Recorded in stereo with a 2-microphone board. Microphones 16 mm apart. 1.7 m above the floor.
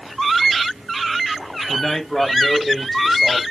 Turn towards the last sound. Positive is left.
turn(degrees=10)  # may be behind; listen again after turning